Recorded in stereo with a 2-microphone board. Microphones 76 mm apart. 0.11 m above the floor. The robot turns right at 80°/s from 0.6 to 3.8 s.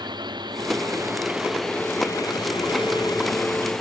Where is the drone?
75° right (ahead or behind); by 3.8 s 5° left (ahead or behind).